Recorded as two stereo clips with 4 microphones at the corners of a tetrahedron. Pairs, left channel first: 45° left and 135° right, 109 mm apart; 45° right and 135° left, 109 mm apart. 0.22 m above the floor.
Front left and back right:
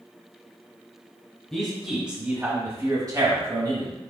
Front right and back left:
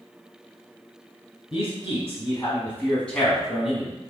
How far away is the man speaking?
About 1.4 m.